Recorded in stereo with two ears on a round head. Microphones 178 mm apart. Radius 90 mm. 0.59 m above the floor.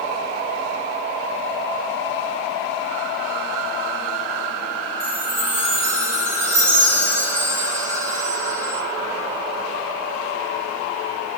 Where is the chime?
60° right (ahead or behind), 5.5 m.